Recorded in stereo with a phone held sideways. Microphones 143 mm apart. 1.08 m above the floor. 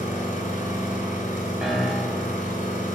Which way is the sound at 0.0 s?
60° left (ahead or behind).